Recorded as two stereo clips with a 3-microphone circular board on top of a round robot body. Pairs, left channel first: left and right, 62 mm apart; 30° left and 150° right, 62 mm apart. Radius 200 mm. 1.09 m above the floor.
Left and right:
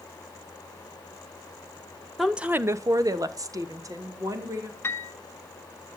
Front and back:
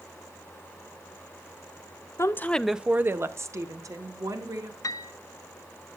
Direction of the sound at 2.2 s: Straight ahead.